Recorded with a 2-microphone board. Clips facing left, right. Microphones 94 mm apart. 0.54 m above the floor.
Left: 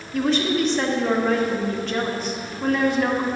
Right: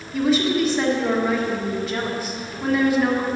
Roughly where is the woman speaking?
Centre.